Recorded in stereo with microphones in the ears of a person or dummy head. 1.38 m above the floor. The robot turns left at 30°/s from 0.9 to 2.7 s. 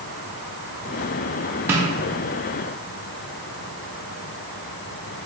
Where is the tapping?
10° right (ahead or behind), 0.5 m; by 1.8 s 15° right (ahead or behind), 0.5 m.